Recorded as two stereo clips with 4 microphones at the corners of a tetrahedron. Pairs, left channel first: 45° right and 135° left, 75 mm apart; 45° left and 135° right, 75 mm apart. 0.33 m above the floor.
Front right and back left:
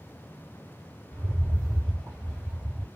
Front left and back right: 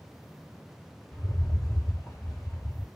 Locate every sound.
1.1 s a rattle: 45° left, 2 m